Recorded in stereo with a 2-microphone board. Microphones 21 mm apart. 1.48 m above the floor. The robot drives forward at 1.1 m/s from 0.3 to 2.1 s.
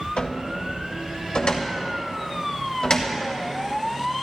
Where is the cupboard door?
85° left, 1.9 m; by 3.2 s 45° left (ahead or behind), 2.5 m.